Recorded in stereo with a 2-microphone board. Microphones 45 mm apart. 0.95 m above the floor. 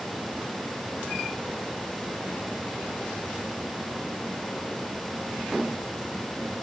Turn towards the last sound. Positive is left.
No sound to turn to.